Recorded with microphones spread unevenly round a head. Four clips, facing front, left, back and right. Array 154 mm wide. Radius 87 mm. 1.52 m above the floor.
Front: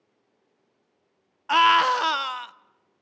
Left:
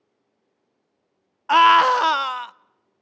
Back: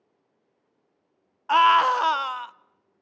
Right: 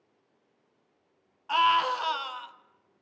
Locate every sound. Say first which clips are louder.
1.5 s a scream: left 10 dB, back 1 dB; 75° left, 0.7 m